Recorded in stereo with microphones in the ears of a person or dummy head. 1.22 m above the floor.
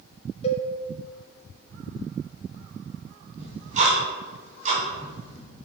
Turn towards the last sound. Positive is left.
turn(degrees=-45)  # may be behind; listen again after turning